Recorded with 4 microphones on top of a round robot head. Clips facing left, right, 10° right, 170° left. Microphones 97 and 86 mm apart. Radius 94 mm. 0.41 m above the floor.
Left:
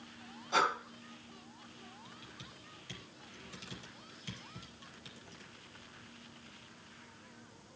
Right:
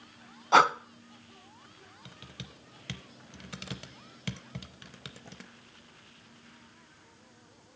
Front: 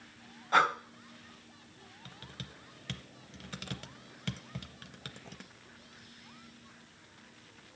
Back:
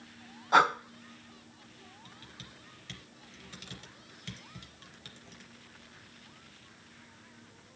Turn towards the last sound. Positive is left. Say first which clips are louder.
# right 3 dB, front 2 dB
turn(degrees=-55)